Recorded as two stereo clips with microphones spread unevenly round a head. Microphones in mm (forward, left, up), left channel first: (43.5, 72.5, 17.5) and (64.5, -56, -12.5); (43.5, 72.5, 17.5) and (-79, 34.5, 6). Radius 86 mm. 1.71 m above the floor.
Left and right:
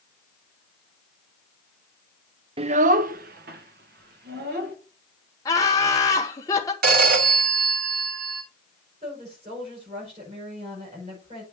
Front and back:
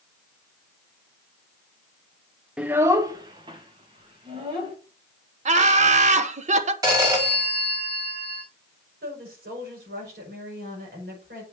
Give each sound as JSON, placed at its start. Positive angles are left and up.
{"t": 2.6, "sound": "a child speaking", "azimuth_deg": -75, "distance_m": 0.5}
{"t": 5.5, "sound": "laughter", "azimuth_deg": 165, "distance_m": 1.2}
{"t": 6.8, "sound": "a phone ringing", "azimuth_deg": -90, "distance_m": 2.5}
{"t": 9.0, "sound": "a woman speaking", "azimuth_deg": -140, "distance_m": 7.0}